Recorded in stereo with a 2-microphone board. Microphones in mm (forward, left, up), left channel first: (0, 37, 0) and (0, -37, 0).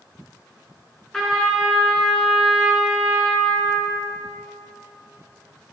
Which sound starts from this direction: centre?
A trumpet, at 1.1 s.